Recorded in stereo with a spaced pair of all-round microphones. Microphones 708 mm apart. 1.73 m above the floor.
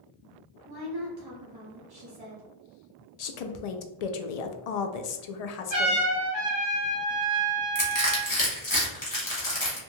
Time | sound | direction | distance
0.7 | a woman speaking | 35° right (ahead or behind) | 0.7 m
3.2 | a woman speaking | 70° left (ahead or behind) | 0.5 m
5.7 | a trumpet | 15° left (ahead or behind) | 1.8 m
7.8 | crushing | 40° left (ahead or behind) | 1.2 m